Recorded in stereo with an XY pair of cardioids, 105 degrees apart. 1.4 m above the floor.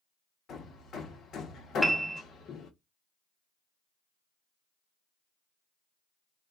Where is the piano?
5° right, 0.7 m.